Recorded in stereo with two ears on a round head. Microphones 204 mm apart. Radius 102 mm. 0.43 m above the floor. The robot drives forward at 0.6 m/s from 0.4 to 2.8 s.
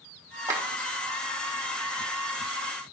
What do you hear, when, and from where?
0.5 s a clap: 15° right (ahead or behind), 1.0 m